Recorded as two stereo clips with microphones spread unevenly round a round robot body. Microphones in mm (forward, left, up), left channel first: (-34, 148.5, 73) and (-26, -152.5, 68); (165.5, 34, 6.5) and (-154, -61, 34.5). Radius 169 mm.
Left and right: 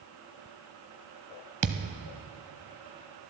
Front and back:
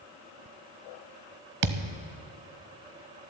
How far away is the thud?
About 0.7 m.